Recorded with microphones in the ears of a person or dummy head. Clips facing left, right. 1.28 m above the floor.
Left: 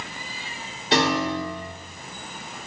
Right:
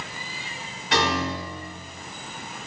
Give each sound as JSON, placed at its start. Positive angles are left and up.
{"t": 0.9, "sound": "a piano", "side_deg": 30, "distance_m": 3.5}